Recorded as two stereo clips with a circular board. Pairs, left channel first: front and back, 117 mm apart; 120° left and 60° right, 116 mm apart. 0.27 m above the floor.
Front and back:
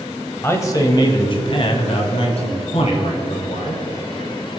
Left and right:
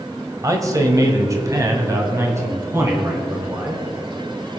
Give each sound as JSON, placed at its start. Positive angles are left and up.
{"t": 0.4, "sound": "a man speaking", "azimuth_deg": -45, "distance_m": 1.1}